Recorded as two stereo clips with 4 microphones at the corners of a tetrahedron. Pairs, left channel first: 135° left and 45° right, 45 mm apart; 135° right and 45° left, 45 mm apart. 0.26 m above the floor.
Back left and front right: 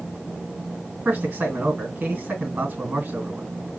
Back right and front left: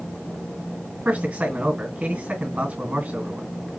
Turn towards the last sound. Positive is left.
turn(degrees=10)